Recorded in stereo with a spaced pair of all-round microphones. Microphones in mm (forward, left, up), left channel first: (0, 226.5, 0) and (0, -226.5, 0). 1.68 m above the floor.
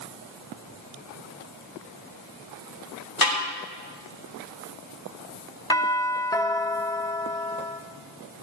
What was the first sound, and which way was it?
A snare drum, 50° left (ahead or behind).